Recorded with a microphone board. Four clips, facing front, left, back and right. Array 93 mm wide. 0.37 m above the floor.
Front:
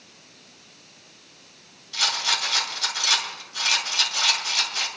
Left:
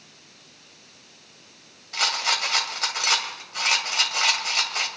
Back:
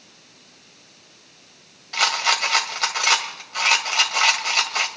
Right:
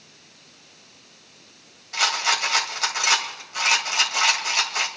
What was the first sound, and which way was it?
A rattle, 170° right.